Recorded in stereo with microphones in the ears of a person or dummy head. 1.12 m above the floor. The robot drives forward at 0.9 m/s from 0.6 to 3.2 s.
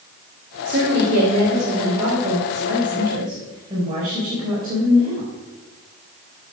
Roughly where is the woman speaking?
Right.